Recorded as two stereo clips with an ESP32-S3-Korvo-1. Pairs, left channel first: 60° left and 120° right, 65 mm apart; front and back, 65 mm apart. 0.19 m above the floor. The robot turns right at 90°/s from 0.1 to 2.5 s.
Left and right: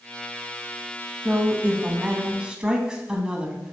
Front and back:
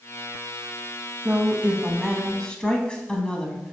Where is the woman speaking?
170° right, 1.1 m; by 3.7 s 60° right, 1.1 m.